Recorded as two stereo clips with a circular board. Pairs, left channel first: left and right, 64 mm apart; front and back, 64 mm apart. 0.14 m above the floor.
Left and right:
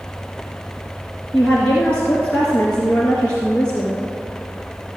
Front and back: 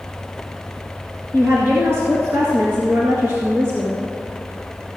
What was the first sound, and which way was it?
A woman speaking, 155° left.